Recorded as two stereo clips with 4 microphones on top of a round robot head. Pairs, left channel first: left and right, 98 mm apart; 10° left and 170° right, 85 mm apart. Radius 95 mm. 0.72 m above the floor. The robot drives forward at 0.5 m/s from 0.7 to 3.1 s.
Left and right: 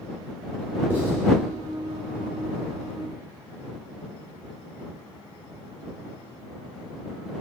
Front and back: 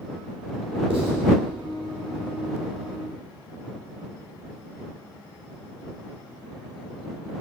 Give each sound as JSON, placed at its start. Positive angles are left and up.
{"t": 0.9, "sound": "writing", "azimuth_deg": -165, "distance_m": 1.2}